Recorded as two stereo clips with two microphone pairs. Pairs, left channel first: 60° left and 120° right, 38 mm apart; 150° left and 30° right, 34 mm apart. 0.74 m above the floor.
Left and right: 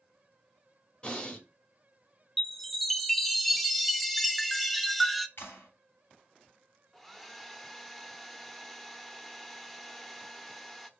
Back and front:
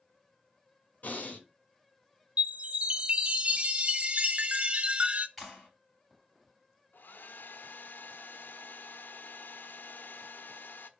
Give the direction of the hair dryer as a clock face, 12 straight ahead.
7 o'clock.